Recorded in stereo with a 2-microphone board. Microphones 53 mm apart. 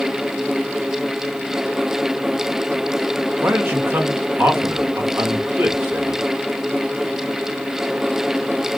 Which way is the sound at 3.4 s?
45° right (ahead or behind).